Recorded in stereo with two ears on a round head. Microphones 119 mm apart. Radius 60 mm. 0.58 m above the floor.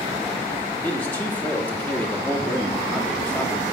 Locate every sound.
0.8 s a man speaking: 15° left (ahead or behind), 1.4 m